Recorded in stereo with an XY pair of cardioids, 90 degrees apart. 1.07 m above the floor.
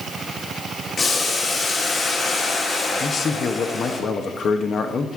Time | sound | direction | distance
1.0 | boiling | 50° left | 2.0 m
3.0 | a man speaking | 55° left | 0.9 m